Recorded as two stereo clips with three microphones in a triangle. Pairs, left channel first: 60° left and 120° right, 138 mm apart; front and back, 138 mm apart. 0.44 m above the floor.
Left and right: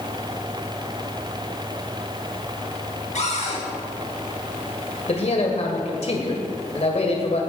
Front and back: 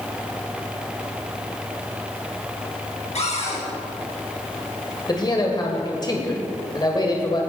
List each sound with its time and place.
3.1 s a cupboard door: 35° left, 4 m
5.1 s a man speaking: 50° left, 2 m